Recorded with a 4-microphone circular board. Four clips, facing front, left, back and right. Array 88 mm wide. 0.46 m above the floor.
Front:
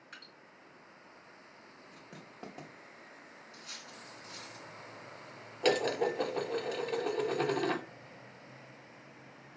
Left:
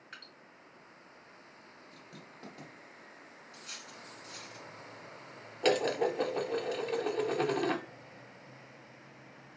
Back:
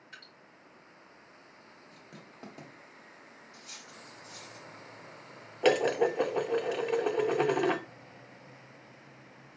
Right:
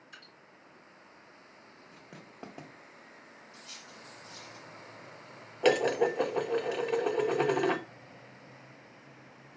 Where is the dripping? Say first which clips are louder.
Left 3 dB, back 1 dB; 75° left, 2.5 m.